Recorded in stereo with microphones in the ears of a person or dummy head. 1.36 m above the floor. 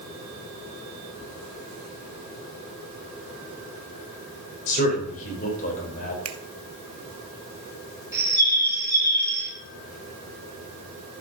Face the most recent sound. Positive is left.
turn(degrees=-10)  # may be behind; listen again after turning